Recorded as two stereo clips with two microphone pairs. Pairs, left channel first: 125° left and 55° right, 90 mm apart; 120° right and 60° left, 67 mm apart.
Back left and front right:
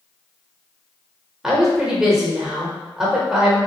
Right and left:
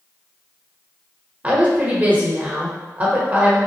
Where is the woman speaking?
25° left, 0.9 m.